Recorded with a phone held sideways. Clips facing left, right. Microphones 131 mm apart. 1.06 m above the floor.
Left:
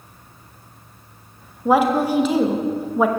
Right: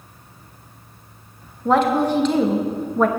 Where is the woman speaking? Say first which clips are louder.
Even; 10° left (ahead or behind), 1.0 m.